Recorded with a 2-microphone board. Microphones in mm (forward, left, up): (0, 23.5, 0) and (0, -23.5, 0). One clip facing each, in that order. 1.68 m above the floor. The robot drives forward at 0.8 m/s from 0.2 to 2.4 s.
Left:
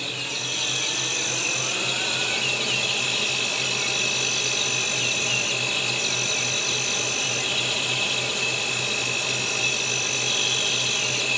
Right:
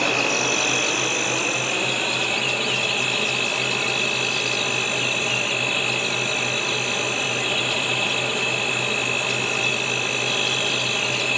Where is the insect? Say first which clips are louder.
Right 10 dB; 60° right (ahead or behind); by 11.4 s 20° right (ahead or behind).